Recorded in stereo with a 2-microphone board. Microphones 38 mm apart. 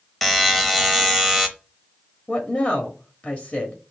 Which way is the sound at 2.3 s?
40° left (ahead or behind).